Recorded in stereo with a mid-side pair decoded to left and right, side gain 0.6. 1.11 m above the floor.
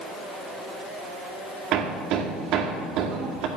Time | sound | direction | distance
1.7 | hammering | 65° right | 2.5 m